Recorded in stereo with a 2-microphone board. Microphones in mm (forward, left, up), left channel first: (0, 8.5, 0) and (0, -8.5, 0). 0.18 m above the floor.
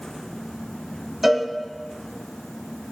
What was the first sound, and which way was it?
A cowbell, 25° right (ahead or behind).